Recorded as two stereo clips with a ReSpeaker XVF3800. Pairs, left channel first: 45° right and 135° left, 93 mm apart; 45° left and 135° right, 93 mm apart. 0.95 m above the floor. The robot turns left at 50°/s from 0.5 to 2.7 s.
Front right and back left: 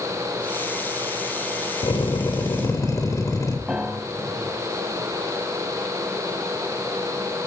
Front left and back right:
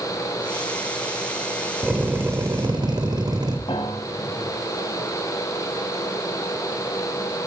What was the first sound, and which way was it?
A drill, 50° right.